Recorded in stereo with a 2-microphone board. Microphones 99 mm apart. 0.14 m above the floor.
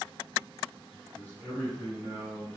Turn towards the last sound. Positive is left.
turn(degrees=10)  # may be behind; listen again after turning